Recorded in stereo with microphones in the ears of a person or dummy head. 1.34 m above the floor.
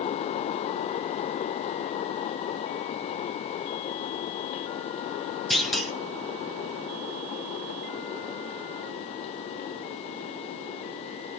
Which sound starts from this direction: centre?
A clunk, at 5.5 s.